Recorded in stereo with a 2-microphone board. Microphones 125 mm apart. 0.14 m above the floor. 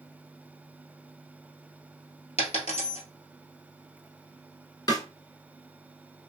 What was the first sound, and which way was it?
A dropped coin, 65° left (ahead or behind).